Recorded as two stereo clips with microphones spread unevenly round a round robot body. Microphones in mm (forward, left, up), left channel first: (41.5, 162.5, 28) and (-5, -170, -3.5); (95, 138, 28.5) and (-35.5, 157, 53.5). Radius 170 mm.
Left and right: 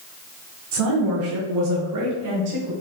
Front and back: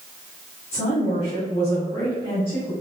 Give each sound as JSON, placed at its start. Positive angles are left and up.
{"t": 0.7, "sound": "a woman speaking", "azimuth_deg": -65, "distance_m": 2.5}